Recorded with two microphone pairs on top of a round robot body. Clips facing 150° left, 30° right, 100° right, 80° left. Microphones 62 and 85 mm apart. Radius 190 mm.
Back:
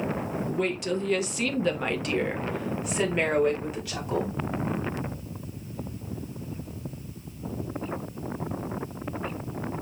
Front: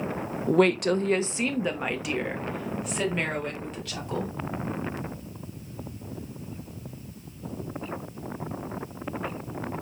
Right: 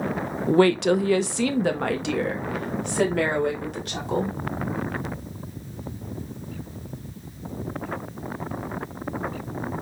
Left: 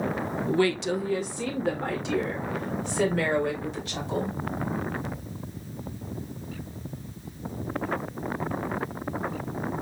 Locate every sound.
0.5 s a woman speaking: 45° right, 0.6 m; by 4.3 s 130° right, 3 m